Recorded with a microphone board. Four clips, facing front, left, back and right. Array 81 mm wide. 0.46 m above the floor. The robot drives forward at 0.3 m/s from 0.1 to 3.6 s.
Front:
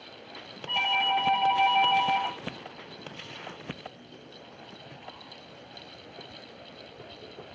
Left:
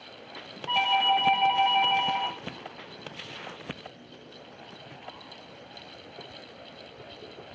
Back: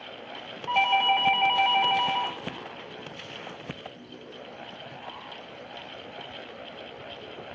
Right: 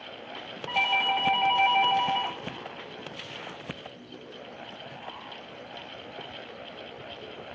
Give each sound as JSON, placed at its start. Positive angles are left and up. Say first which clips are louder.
{"t": 0.7, "sound": "a doorbell", "louder": "left 3 dB, back 5 dB", "azimuth_deg": -170, "distance_m": 1.7}